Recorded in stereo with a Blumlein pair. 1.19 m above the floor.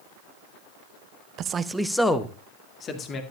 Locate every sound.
1.4 s a man speaking: 35° right, 0.7 m; by 3.2 s 25° left, 2 m